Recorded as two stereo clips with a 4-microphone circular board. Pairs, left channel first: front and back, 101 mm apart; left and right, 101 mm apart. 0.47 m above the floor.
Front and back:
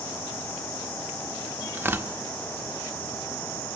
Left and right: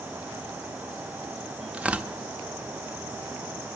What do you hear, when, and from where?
1.7 s tearing paper: 150° right, 0.6 m